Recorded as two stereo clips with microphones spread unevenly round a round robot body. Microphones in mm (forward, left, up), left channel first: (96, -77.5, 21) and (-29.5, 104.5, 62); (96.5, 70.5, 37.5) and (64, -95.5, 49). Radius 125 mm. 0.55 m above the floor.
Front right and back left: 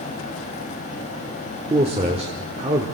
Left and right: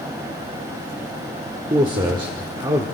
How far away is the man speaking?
About 1.6 m.